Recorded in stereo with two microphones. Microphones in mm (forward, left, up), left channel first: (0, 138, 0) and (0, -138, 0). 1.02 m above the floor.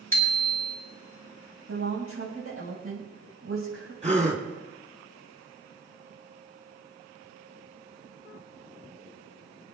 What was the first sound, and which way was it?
A bicycle bell, 50° left (ahead or behind).